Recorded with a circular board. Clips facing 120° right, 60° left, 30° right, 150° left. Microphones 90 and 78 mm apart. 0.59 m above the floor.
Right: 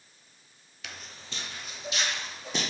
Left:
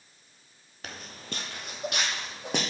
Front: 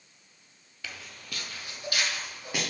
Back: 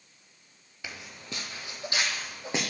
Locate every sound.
0.8 s footsteps: 85° left, 0.7 m